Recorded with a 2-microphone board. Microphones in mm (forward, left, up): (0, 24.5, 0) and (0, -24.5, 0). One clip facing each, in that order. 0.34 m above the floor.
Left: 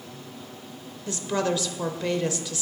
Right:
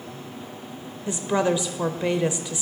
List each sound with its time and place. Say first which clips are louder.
1.1 s a woman speaking: right 4 dB; 20° right (ahead or behind), 0.8 m